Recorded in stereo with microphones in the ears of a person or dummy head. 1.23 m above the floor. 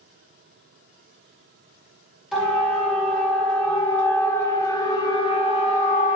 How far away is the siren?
About 6 m.